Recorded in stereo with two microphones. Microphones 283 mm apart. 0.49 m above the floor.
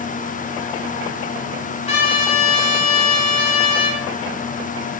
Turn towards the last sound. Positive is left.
turn(degrees=20)  # may be behind; listen again after turning